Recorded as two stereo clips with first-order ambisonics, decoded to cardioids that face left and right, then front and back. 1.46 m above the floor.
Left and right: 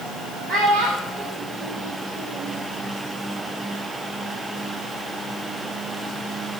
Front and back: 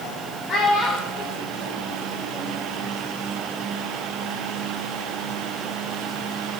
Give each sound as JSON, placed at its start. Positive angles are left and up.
{"t": 0.5, "sound": "a child speaking", "azimuth_deg": -50, "distance_m": 1.3}